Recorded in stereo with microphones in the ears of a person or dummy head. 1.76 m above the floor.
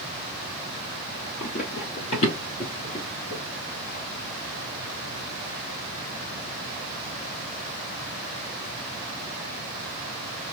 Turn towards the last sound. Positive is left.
turn(degrees=25)  # may be behind; listen again after turning